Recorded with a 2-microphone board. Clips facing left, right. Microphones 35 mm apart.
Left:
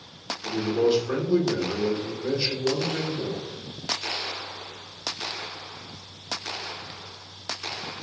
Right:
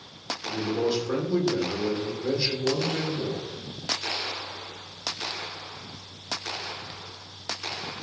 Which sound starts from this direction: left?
A man speaking, at 0.4 s.